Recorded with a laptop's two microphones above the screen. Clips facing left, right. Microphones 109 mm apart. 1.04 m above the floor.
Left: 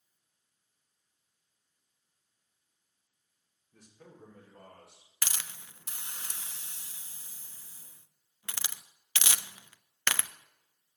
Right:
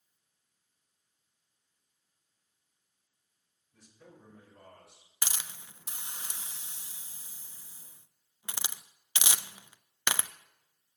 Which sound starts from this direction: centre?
A hiss, at 5.2 s.